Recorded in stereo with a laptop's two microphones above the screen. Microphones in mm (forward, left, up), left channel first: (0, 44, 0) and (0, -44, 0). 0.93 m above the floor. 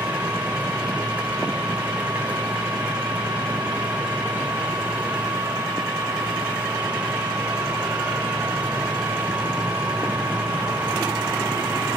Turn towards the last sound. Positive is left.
turn(degrees=-15)  # may be behind; listen again after turning